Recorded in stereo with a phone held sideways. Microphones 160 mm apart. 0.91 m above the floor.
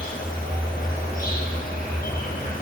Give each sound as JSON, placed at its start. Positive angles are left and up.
{"t": 0.0, "sound": "an insect", "side_deg": 60, "distance_m": 6.0}